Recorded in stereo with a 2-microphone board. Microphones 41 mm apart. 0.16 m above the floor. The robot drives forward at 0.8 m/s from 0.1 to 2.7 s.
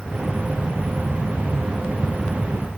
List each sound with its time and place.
Only background noise.